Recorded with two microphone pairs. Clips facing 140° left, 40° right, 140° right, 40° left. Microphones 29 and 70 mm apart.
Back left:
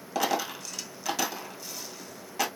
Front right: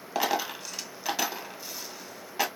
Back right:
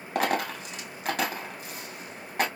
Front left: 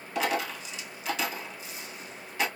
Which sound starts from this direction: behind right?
A dropped coin, at 0.1 s.